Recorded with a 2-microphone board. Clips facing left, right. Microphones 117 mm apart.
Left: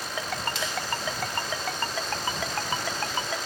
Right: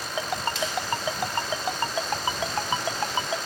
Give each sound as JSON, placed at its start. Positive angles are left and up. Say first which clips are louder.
{"t": 0.2, "sound": "a ringtone", "louder": "right 4 dB", "side_deg": -20}